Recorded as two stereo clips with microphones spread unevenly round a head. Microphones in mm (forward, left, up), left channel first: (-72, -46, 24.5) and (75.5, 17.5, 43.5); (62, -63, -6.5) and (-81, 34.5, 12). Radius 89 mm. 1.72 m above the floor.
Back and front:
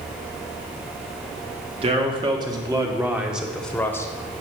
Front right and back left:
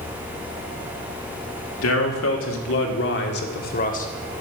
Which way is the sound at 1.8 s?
30° right.